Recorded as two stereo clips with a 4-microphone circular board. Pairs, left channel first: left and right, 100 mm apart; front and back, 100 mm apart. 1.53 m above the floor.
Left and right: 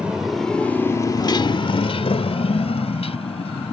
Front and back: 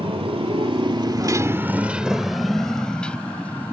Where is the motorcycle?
170° right; by 3.7 s 75° left.